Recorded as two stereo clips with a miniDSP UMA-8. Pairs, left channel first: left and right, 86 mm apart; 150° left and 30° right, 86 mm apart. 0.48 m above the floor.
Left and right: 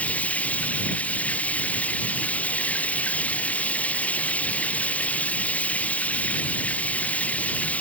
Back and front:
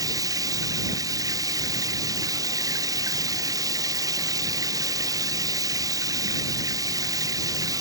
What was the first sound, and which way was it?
Running water, 15° left.